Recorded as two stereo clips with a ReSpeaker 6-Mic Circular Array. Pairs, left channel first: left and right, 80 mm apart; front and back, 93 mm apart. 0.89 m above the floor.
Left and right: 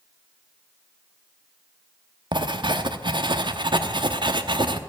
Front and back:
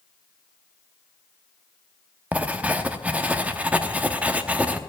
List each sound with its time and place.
2.3 s writing: 105° right, 0.8 m